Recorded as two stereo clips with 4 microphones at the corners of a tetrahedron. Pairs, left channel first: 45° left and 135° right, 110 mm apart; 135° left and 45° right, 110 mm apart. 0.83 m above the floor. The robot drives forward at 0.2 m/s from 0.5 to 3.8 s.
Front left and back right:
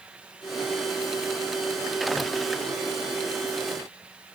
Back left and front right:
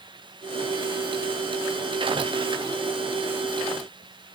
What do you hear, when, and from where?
Only background noise.